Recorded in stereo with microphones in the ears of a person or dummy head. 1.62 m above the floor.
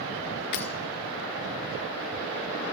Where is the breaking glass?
50° left (ahead or behind), 1.8 m.